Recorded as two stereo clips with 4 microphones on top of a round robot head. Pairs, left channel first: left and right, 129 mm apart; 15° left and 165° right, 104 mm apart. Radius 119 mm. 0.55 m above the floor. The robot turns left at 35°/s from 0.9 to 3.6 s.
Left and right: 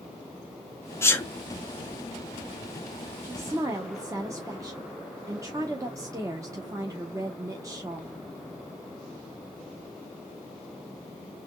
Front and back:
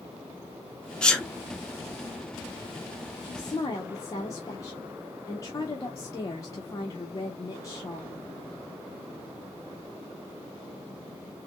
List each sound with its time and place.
1.0 s a sneeze: 80° left, 0.8 m; by 1.3 s 70° left, 0.8 m
3.2 s a woman speaking: 20° right, 1.0 m; by 8.2 s 30° right, 1.0 m